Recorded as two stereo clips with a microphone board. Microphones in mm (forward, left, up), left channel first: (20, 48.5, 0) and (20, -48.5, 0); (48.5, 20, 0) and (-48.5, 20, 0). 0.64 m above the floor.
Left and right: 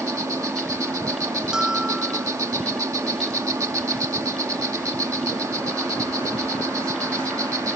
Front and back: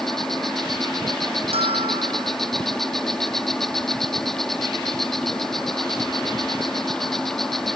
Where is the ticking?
I don't hear ticking.